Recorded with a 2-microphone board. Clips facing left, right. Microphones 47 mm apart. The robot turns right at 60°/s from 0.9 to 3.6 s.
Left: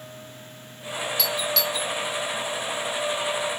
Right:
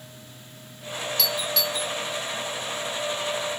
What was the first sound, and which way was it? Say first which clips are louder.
A doorbell: left 1 dB; 5° left (ahead or behind).